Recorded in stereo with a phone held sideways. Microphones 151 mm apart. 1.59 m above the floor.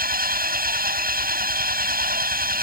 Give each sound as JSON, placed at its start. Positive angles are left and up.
{"t": 0.0, "sound": "an engine running", "side_deg": -75}